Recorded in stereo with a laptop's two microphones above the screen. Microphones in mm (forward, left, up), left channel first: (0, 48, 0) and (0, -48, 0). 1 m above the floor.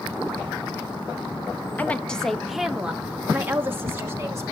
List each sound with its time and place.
1.8 s a woman speaking: 20° left (ahead or behind), 1.1 m; by 4.5 s 30° right (ahead or behind), 2 m